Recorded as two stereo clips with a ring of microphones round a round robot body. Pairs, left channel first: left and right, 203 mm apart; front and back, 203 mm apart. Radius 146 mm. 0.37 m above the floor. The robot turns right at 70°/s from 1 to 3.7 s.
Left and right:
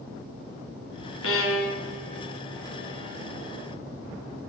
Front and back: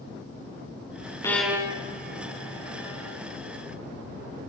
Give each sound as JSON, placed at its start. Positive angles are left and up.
{"t": 1.2, "sound": "a violin", "azimuth_deg": 75, "distance_m": 2.0}